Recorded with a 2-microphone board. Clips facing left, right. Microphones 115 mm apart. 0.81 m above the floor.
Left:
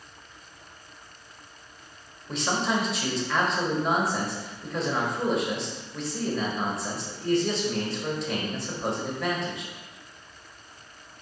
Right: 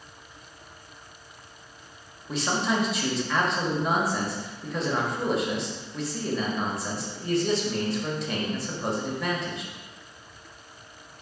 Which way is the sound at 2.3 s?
Centre (ahead or behind).